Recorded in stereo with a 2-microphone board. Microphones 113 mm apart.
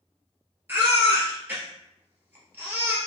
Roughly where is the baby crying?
Centre.